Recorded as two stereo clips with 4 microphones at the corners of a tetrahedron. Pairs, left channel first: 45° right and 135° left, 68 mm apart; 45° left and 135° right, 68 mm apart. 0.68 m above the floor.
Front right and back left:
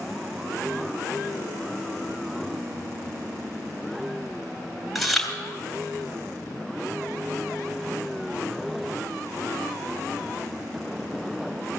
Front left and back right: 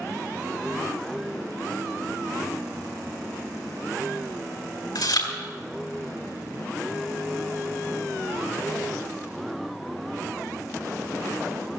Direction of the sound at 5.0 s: 45° left.